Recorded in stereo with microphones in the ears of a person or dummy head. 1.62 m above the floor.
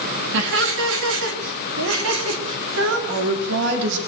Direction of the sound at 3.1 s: 70° right (ahead or behind).